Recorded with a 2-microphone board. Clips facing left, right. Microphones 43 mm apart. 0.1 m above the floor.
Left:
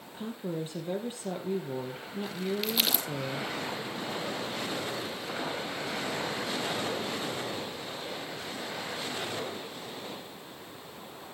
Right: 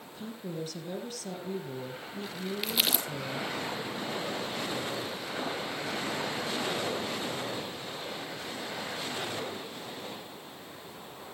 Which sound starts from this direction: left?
A woman speaking, at 0.1 s.